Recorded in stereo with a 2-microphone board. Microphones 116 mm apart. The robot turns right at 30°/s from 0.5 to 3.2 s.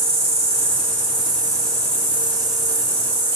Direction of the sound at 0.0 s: 65° right.